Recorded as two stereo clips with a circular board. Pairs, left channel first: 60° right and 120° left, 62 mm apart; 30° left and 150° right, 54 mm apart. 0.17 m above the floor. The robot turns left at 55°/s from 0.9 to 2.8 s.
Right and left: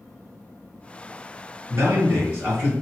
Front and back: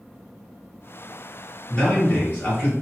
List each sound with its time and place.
1.7 s a man speaking: 110° left, 1.6 m; by 2.7 s 55° left, 1.6 m